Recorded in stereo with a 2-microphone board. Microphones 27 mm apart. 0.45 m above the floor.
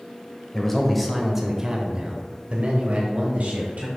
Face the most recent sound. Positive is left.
turn(degrees=-70)  # may be behind; listen again after turning